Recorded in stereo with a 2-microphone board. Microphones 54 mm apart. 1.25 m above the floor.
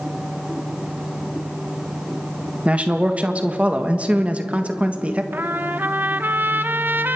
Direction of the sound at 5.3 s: 35° right (ahead or behind).